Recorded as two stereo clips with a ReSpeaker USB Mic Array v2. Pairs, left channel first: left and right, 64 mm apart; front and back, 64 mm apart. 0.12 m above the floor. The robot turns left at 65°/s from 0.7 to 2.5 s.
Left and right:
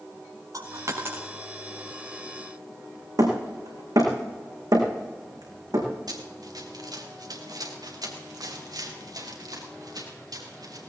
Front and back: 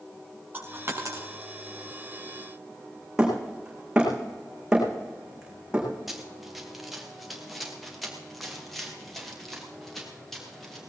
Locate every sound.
0.5 s a dropped coin: 120° right, 3 m; by 1.3 s 155° right, 3 m
3.2 s hammering: 105° right, 4.5 m
6.1 s running footsteps: 95° right, 3 m; by 10.8 s 90° right, 5.5 m